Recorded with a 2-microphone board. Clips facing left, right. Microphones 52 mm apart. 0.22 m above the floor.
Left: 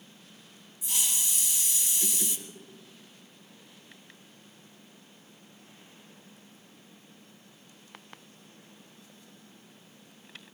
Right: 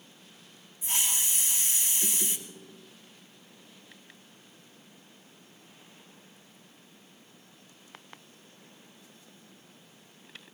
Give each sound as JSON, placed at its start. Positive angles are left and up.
{"t": 0.8, "sound": "a hiss", "side_deg": -35, "distance_m": 1.6}